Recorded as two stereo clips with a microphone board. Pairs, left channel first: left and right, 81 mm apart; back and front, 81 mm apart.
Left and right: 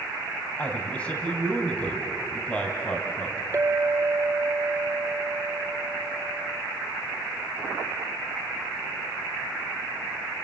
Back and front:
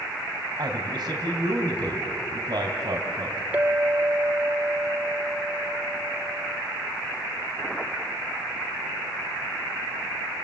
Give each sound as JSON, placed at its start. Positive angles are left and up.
{"t": 0.6, "sound": "a man speaking", "azimuth_deg": 15, "distance_m": 2.5}
{"t": 3.5, "sound": "a clink", "azimuth_deg": -60, "distance_m": 0.8}